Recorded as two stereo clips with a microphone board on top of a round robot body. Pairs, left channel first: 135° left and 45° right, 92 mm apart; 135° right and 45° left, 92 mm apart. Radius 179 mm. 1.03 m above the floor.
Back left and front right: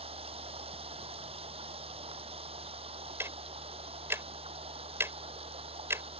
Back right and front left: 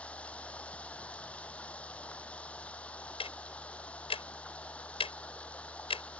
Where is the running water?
55° right.